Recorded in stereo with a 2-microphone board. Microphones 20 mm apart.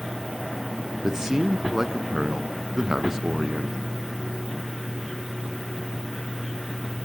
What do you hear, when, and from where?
1.0 s a man speaking: 30° right (ahead or behind), 1.3 m